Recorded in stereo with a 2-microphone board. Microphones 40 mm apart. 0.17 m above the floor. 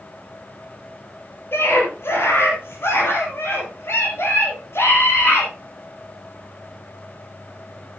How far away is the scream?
About 5 m.